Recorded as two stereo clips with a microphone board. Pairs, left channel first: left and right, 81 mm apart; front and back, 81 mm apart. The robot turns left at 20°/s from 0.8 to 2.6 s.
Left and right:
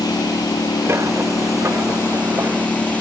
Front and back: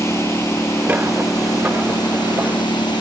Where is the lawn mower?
55° left; by 3.0 s 15° left.